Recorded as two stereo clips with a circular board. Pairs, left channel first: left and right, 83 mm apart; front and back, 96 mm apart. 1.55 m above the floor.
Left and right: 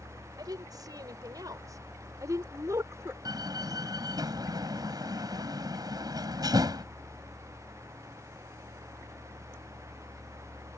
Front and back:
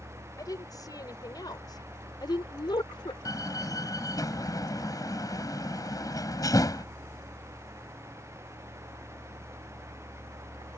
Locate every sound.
0.4 s a woman speaking: 50° right; by 3.1 s 35° right
3.2 s a door slam: 50° right